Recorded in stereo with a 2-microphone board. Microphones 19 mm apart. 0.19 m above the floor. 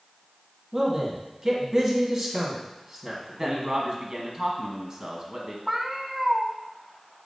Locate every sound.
0.7 s a man speaking: 35° right (ahead or behind), 1.9 m
3.4 s a man speaking: 40° right (ahead or behind), 1.4 m
5.7 s a cat meowing: 20° right (ahead or behind), 0.7 m